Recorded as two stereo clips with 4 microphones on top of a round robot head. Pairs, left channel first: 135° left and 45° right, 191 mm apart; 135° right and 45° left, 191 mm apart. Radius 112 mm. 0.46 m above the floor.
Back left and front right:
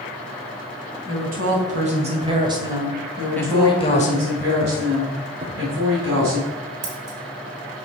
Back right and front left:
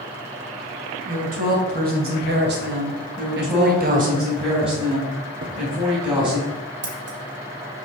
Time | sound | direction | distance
1.1 | a woman speaking | straight ahead | 3 m
3.2 | a woman speaking | 20° right | 2.5 m
5.4 | a thud | 20° left | 3 m
6.8 | scissors | 10° left | 1.5 m